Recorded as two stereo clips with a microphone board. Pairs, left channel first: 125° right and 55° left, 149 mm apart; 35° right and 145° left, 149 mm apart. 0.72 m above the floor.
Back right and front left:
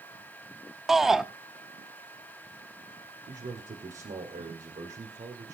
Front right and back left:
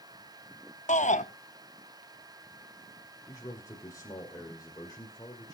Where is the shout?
30° right, 0.9 m.